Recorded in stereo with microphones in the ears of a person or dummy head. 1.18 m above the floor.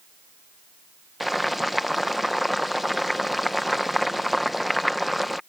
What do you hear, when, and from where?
1.2 s boiling: centre (ahead or behind)